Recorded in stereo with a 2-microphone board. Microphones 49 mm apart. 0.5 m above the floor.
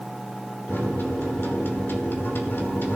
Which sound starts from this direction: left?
A microwave, at 0.7 s.